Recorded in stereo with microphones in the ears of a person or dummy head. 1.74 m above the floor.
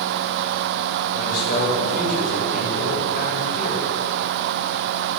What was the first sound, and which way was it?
A man speaking, 55° left (ahead or behind).